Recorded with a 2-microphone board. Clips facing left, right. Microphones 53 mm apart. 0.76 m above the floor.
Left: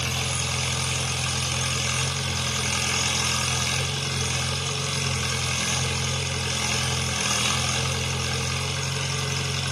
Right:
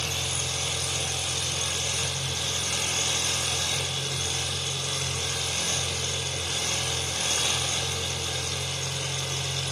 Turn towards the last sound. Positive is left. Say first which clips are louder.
# left 3 dB
turn(degrees=60)  # may be behind; listen again after turning